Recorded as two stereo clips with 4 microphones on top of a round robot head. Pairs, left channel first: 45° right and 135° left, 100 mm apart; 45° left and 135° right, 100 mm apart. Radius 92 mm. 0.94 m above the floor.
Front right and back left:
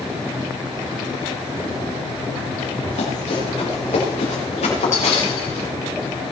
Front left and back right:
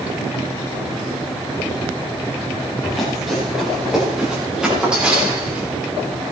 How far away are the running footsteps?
About 8.5 m.